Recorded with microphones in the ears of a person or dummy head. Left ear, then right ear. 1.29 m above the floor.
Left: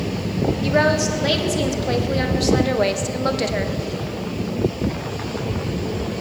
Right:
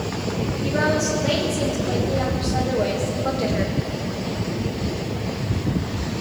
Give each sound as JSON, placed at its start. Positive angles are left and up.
{"t": 0.6, "sound": "a woman speaking", "side_deg": 50, "distance_m": 3.0}